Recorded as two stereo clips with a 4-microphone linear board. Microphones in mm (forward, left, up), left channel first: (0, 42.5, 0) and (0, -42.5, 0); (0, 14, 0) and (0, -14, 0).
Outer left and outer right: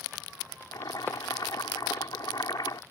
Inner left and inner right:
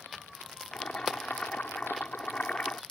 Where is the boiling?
55° left (ahead or behind).